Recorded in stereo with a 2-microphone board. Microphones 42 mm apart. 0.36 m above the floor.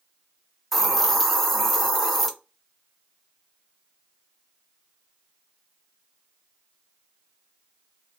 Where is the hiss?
5° left (ahead or behind), 0.6 m.